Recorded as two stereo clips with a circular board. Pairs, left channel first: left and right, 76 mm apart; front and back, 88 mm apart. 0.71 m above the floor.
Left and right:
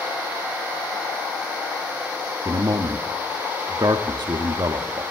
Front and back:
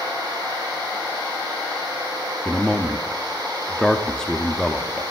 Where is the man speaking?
80° right, 0.9 m.